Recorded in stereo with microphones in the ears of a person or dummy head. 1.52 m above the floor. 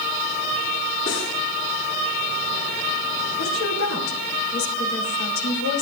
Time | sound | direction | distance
1.1 | cutlery clinking | 50° left (ahead or behind) | 8 m
3.4 | a woman speaking | 75° left (ahead or behind) | 3.5 m